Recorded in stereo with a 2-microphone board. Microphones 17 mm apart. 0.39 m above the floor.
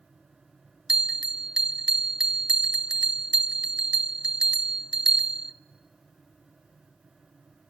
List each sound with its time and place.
0.9 s a bell: 70° right (ahead or behind), 0.6 m